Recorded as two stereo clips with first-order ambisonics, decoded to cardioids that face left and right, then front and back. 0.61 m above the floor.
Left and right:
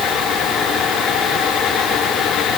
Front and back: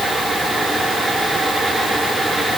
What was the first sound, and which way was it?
Only background noise.